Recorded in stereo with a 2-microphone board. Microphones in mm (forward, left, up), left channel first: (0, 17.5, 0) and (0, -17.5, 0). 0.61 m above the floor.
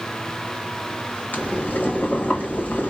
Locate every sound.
1.3 s boiling: 55° left (ahead or behind), 0.9 m